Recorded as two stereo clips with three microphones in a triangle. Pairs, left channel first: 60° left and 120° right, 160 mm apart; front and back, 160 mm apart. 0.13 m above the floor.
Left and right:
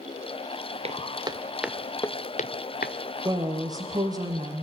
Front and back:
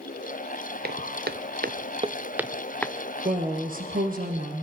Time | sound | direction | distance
0.8 | footsteps | 170° right | 1.4 m
3.2 | a woman speaking | straight behind | 2.5 m